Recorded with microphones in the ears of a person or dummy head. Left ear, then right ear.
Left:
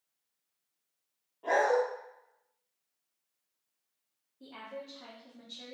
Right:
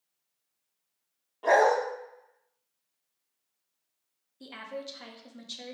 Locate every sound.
1.4 s a dog barking: 60° right (ahead or behind), 0.9 m
4.4 s a woman speaking: 55° right (ahead or behind), 0.7 m